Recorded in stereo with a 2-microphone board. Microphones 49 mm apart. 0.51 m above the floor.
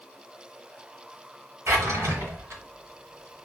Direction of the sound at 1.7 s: 80° right.